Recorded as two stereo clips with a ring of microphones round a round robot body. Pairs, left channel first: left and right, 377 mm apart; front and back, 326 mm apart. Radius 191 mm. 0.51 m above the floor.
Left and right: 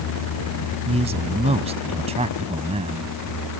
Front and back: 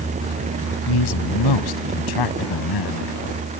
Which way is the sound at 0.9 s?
15° right.